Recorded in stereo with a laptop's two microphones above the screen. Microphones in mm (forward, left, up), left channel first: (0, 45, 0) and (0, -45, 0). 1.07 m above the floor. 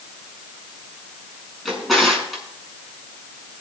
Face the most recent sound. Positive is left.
turn(degrees=0)  # may be behind; listen again after turning